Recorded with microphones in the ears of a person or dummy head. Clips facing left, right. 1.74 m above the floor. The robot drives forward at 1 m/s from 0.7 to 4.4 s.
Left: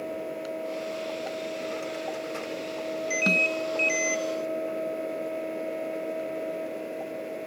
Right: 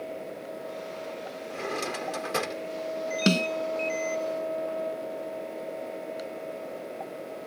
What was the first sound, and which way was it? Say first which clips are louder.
A drawer: left 1 dB; 70° right (ahead or behind).